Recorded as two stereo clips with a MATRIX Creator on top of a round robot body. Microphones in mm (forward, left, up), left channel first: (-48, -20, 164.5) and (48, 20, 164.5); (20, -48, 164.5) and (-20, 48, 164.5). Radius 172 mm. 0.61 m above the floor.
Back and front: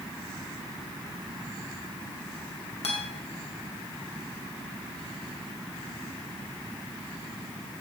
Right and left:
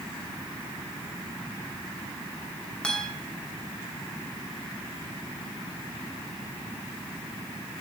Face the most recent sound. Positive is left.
turn(degrees=-145)